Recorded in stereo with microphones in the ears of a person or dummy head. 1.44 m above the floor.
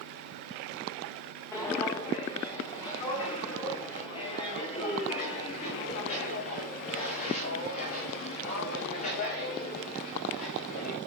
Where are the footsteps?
15° left (ahead or behind), 4 m; by 11.0 s 50° left (ahead or behind), 7.5 m.